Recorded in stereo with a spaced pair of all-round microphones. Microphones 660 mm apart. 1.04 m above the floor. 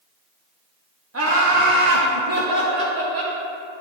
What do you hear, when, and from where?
1.1 s laughter: 20° right (ahead or behind), 0.7 m; by 3.4 s 75° right (ahead or behind), 1.8 m